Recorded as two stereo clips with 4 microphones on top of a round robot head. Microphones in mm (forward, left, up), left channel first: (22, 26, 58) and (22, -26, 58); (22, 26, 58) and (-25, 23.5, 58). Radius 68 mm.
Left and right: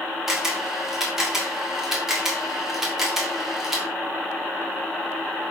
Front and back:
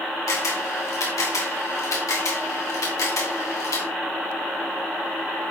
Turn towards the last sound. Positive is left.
turn(degrees=-5)